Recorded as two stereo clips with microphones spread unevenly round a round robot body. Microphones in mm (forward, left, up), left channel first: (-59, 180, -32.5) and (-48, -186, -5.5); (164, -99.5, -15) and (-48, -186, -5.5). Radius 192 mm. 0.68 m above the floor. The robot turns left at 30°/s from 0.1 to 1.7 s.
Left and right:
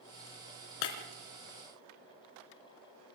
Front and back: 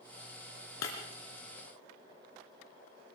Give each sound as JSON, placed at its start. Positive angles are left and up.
{"t": 0.8, "sound": "breaking glass", "azimuth_deg": 70, "distance_m": 3.0}